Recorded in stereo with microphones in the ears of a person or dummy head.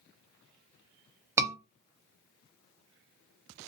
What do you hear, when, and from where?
1.4 s a scream: 20° right (ahead or behind), 1.0 m